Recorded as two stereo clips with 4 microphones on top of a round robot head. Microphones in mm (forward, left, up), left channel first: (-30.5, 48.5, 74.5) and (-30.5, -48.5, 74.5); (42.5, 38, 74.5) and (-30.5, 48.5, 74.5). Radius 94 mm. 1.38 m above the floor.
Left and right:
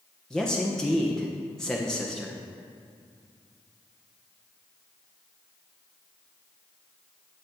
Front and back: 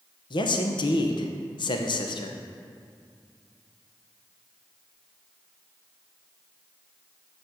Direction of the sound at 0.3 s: 5° left.